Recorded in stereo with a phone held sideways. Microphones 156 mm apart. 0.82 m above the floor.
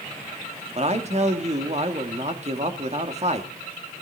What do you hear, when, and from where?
0.8 s a man speaking: 45° right (ahead or behind), 1.9 m